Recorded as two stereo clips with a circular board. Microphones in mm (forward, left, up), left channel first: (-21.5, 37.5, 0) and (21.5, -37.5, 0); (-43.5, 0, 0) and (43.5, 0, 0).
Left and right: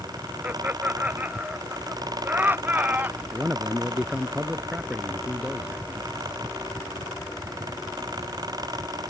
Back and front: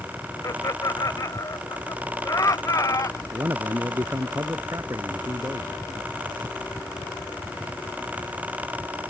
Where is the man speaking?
10° left.